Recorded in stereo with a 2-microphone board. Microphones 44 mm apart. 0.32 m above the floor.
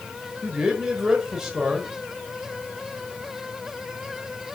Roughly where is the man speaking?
Centre.